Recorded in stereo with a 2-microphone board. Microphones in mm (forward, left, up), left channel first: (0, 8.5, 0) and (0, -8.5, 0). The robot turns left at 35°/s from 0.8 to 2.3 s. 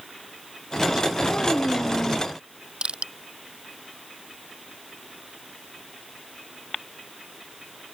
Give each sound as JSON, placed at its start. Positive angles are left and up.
{"t": 1.3, "sound": "a child speaking", "azimuth_deg": 100}
{"t": 2.8, "sound": "crushing", "side_deg": -85}